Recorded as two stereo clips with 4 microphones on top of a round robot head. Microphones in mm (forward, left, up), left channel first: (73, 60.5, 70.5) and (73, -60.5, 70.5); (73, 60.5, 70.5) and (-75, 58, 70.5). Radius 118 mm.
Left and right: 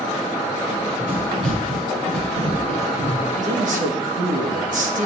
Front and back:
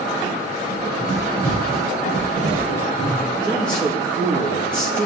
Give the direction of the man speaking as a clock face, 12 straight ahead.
3 o'clock.